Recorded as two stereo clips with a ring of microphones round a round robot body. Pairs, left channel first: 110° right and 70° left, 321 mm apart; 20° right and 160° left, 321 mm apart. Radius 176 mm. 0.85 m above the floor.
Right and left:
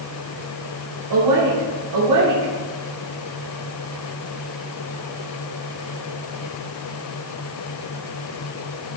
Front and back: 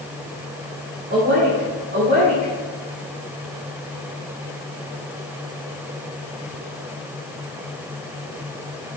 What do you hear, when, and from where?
1.1 s a woman speaking: 95° left, 2.5 m